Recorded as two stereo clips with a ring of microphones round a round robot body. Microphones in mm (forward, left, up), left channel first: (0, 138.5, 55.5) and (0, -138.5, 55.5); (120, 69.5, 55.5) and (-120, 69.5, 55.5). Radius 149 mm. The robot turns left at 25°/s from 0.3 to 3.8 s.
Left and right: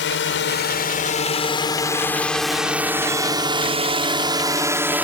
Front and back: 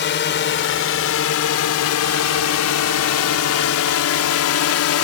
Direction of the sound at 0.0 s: 40° left.